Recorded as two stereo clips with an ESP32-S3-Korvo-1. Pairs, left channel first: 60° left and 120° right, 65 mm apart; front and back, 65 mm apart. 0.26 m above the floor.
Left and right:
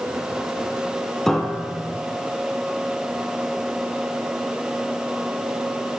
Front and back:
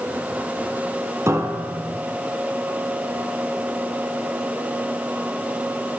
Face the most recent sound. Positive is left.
turn(degrees=140)